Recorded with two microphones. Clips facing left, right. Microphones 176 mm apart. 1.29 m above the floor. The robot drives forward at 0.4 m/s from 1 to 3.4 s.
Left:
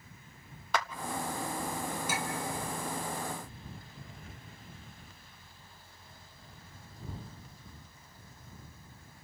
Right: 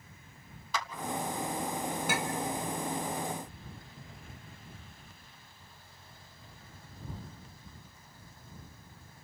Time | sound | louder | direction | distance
0.7 | a clap | left 4 dB | 65° left (ahead or behind) | 0.9 m
2.1 | a clink | right 3 dB | 65° right (ahead or behind) | 1.0 m